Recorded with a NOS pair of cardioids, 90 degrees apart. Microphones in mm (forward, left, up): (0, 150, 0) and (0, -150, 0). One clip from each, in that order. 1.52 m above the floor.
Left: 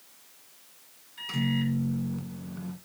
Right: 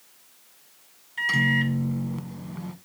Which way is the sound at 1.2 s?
50° right.